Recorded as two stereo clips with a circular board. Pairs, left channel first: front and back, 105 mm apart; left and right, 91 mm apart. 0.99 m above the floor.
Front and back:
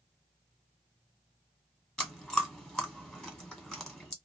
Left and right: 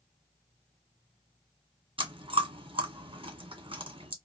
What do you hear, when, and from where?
2.0 s chewing: 90° right, 1.4 m